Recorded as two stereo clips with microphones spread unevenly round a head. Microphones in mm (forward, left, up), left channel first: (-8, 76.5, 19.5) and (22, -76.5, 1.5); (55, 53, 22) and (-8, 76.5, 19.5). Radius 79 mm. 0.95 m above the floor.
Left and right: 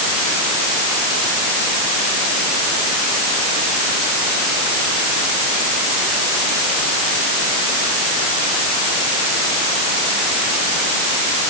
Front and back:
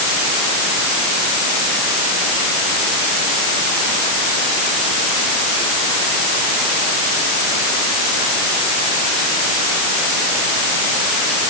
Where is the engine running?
I don't hear an engine running.